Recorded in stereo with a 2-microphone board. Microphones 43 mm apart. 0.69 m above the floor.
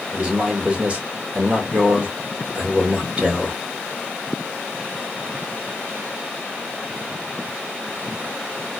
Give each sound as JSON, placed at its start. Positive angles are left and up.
{"t": 0.1, "sound": "a man speaking", "side_deg": -30, "distance_m": 2.0}